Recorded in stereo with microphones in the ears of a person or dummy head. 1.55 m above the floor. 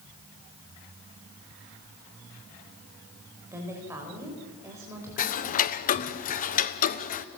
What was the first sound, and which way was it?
A woman speaking, 25° right (ahead or behind).